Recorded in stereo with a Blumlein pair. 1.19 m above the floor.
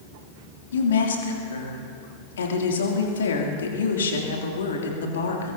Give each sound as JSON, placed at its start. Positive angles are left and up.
{"t": 0.7, "sound": "a woman speaking", "azimuth_deg": 65, "distance_m": 2.5}